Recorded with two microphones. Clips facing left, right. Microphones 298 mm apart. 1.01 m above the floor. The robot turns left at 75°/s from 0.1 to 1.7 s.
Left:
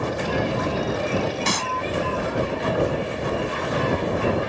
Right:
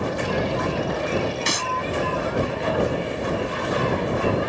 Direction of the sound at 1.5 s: 60° left (ahead or behind).